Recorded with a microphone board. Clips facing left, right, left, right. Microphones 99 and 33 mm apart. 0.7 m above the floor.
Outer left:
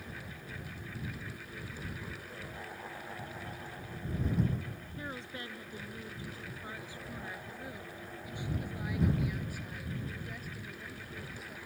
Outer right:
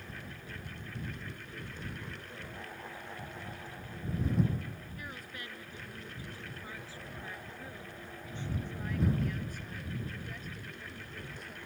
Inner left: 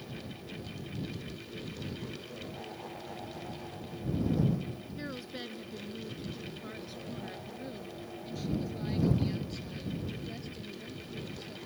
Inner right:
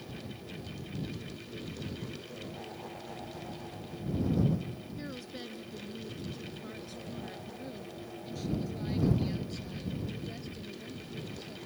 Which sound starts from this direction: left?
A woman speaking, at 5.0 s.